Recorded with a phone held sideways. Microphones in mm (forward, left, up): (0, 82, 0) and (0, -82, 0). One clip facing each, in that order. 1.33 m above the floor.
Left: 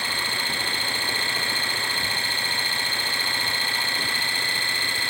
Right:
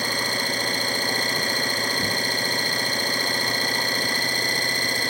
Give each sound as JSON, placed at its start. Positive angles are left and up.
{"t": 0.0, "sound": "an engine running", "side_deg": -40}